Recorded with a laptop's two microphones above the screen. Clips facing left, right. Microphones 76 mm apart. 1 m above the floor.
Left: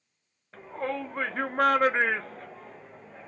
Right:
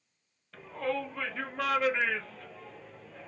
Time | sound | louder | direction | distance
0.5 | a shout | left 1 dB | 30° left (ahead or behind) | 0.9 m